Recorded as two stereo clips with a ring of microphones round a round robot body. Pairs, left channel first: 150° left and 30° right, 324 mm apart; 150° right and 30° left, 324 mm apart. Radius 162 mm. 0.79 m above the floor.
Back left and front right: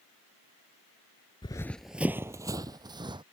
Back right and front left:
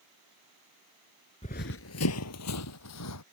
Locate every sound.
1.4 s running footsteps: 170° right; by 3.2 s 105° right